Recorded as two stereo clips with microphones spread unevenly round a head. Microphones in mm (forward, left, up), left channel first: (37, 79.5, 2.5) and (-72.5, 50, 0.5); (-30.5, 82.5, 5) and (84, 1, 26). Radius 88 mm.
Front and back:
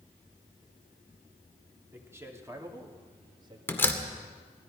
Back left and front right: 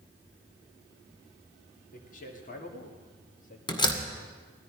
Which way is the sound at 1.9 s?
125° left.